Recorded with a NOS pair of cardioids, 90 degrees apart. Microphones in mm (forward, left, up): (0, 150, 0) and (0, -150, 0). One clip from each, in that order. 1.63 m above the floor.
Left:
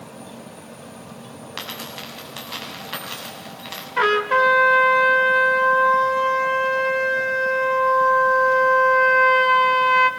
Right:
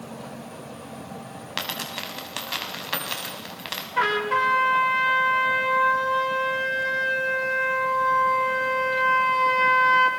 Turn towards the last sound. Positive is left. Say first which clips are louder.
# left 5 dB
turn(degrees=20)